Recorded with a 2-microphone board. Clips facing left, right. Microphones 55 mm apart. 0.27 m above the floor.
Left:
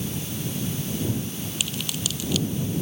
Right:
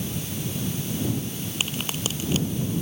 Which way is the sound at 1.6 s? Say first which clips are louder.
Right 2 dB; 30° right (ahead or behind).